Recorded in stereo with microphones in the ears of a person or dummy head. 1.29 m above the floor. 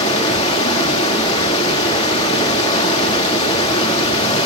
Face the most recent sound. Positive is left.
turn(degrees=30)  # may be behind; listen again after turning